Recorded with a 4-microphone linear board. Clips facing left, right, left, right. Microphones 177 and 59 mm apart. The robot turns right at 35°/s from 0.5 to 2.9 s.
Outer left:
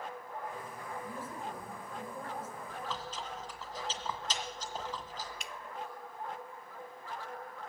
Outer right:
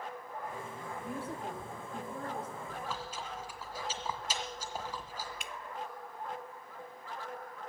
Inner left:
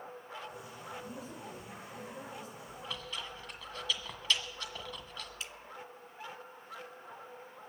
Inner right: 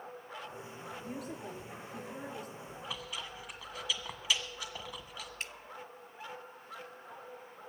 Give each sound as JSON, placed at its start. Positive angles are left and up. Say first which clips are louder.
{"t": 1.0, "sound": "a woman speaking", "louder": "outer right 6 dB, inner right 3 dB", "azimuth_deg": -115, "distance_m": 3.5}
{"t": 2.7, "sound": "chewing", "louder": "even, inner left 2 dB", "side_deg": -15, "distance_m": 1.6}
{"t": 5.4, "sound": "dripping", "louder": "outer right 1 dB, inner right 5 dB", "side_deg": -50, "distance_m": 0.6}